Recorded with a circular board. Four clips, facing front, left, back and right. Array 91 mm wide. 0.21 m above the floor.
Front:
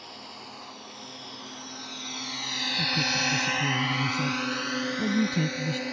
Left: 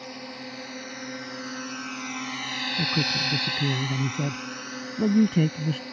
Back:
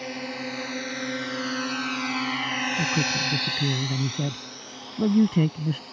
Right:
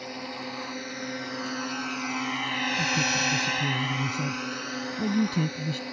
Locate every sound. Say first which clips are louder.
0.0 s a drone: right 2 dB, back 11 dB; straight behind; by 5.9 s 5° right
2.8 s a man speaking: left 1 dB, front 1 dB; 135° left